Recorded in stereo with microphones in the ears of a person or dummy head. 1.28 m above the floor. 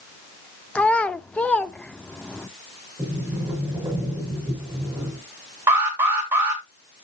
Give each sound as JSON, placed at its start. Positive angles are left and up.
{"t": 0.8, "sound": "a child speaking", "side_deg": 5, "distance_m": 0.6}
{"t": 3.0, "sound": "a sliding door", "side_deg": -10, "distance_m": 4.5}
{"t": 5.7, "sound": "an alarm", "side_deg": -10, "distance_m": 2.5}